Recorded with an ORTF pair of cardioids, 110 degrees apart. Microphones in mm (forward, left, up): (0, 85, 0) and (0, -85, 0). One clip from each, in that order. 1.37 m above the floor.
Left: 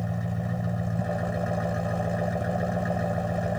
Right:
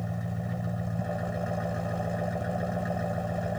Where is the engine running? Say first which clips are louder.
Left 3 dB; 25° left.